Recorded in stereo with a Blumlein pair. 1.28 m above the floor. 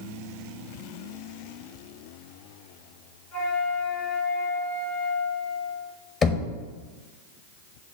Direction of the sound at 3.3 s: 45° left.